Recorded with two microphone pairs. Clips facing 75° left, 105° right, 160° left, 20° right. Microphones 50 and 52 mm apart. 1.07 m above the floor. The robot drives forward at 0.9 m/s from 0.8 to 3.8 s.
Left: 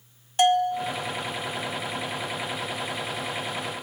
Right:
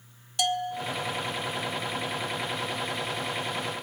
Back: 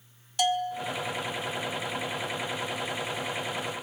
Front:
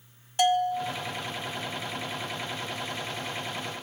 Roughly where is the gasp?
I don't hear a gasp.